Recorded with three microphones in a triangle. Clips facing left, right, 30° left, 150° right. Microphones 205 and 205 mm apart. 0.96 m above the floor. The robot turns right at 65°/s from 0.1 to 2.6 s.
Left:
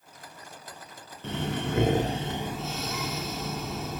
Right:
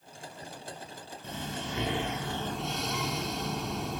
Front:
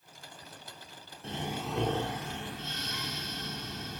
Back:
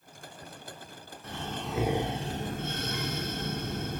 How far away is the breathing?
About 0.9 m.